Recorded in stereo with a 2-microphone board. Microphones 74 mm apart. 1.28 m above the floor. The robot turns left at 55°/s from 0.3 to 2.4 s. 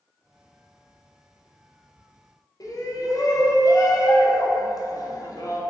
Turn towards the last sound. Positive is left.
turn(degrees=50)  # may be behind; listen again after turning